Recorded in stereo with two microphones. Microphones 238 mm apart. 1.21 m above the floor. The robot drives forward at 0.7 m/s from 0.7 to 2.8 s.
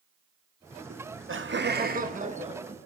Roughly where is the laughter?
Right.